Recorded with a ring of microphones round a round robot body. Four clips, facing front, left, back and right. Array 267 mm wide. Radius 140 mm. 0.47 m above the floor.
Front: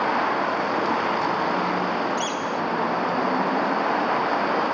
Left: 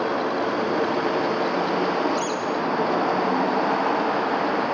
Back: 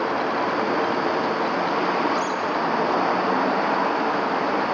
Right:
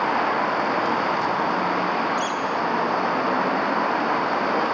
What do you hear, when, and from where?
2.2 s a bird: 35° left